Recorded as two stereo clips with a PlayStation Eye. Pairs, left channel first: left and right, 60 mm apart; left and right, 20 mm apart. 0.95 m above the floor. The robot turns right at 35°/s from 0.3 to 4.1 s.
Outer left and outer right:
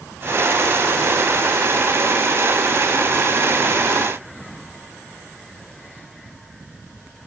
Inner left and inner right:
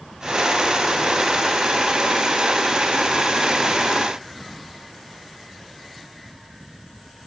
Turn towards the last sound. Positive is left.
No sound to turn to.